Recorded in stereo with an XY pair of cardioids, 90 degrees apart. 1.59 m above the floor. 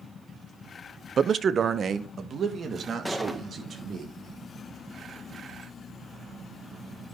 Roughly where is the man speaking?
Ahead right.